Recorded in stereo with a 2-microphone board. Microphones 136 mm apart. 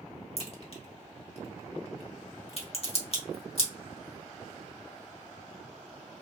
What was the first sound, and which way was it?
A crack, 50° left (ahead or behind).